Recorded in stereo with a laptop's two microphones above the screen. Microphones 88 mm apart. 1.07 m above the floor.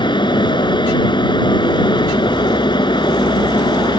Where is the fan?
55° left (ahead or behind).